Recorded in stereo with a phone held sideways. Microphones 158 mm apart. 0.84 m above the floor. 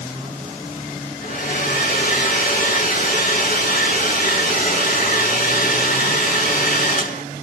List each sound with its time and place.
1.2 s a hair dryer: 55° left (ahead or behind), 6.5 m